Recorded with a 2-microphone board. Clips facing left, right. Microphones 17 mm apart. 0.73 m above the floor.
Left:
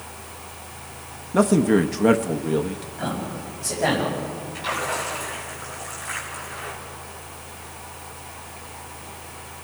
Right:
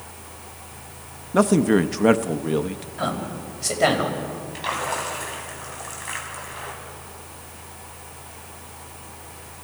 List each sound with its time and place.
1.3 s a man speaking: 15° right (ahead or behind), 0.5 m
3.0 s a man speaking: 75° right (ahead or behind), 5 m
4.5 s a splash: 25° right (ahead or behind), 4 m